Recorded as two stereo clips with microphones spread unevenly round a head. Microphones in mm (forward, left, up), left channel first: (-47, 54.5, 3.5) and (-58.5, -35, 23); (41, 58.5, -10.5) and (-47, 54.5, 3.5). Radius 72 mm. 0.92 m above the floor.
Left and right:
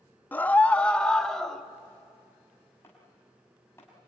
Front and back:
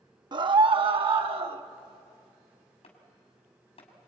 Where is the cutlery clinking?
No cutlery clinking in this recording.